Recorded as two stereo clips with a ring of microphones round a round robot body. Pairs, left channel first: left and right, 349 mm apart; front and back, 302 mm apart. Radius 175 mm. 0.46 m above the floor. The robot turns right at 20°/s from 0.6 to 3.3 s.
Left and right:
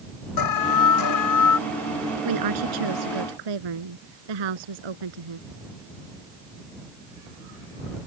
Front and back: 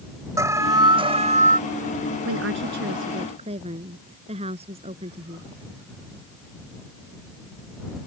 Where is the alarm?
100° left; by 1.6 s 120° left.